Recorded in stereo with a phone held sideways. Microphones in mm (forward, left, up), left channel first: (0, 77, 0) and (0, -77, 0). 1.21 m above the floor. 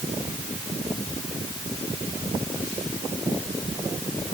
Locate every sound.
Only background noise.